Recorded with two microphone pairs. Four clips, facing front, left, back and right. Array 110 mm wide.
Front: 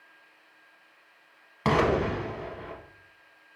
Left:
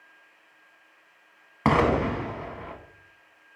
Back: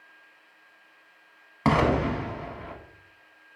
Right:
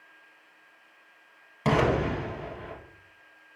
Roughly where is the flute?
I don't hear a flute.